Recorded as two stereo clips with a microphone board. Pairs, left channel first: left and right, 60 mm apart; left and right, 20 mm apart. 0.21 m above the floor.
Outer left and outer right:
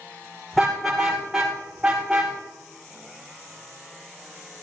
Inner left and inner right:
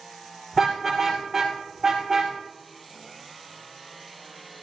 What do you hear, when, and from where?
0.5 s a car horn: 5° left (ahead or behind), 6 m; by 2.3 s 10° right (ahead or behind), 6.5 m